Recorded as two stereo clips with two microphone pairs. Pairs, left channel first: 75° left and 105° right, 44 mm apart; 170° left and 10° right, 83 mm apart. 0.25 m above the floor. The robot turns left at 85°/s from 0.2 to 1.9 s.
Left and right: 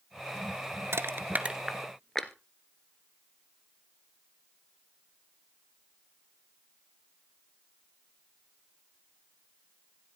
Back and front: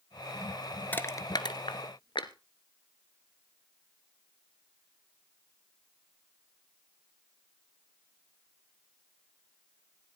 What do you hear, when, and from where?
0.9 s crushing: 120° right, 1.3 m; by 2.3 s 160° left, 1.3 m